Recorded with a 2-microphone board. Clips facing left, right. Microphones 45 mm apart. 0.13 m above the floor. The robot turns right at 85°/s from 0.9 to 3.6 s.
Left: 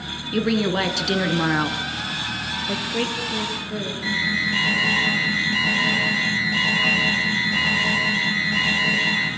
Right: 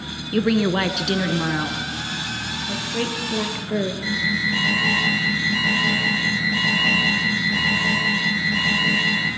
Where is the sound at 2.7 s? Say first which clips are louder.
Left 1 dB; 140° left, 2.5 m; by 3.9 s 140° right, 2.5 m.